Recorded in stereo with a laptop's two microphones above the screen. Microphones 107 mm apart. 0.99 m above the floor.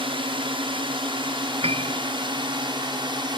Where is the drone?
50° right (ahead or behind); by 3.4 s 45° right (ahead or behind).